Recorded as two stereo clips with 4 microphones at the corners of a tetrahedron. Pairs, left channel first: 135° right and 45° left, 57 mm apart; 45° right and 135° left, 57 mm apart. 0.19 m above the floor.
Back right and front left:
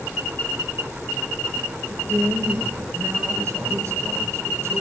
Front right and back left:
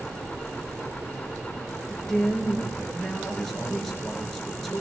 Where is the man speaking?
35° left, 3 m.